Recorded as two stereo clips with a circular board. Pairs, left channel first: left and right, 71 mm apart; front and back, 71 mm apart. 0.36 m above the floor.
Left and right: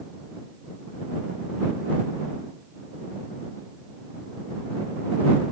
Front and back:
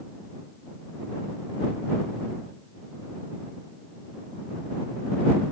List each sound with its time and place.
Only background noise.